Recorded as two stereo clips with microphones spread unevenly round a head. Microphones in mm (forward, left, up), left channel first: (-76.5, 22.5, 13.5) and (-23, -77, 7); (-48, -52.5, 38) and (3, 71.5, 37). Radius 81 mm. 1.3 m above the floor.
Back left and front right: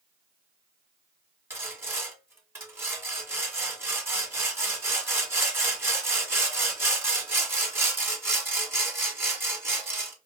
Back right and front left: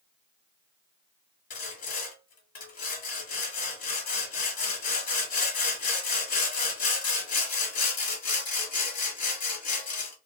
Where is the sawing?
130° right, 1.2 m.